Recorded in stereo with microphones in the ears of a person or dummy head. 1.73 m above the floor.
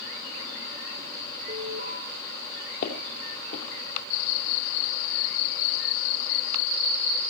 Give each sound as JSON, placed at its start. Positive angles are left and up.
{"t": 1.5, "sound": "an alarm", "side_deg": -50, "distance_m": 6.0}
{"t": 2.8, "sound": "footsteps", "side_deg": 45, "distance_m": 2.5}